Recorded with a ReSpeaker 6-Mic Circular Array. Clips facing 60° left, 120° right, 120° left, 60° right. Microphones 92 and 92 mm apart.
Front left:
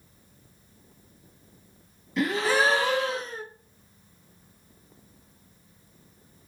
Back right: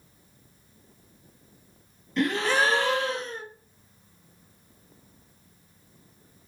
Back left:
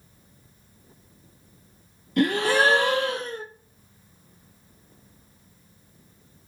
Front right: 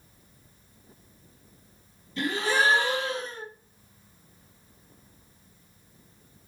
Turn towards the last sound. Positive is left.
turn(degrees=145)